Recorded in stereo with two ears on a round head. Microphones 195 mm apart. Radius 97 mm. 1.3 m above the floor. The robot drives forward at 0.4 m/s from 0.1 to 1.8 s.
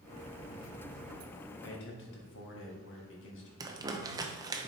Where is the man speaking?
55° left (ahead or behind), 1.6 m; by 3.5 s 60° left (ahead or behind), 1.6 m.